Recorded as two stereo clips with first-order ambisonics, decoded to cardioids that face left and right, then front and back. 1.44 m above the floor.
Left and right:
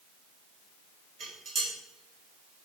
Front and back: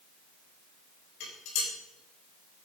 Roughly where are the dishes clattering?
Ahead right.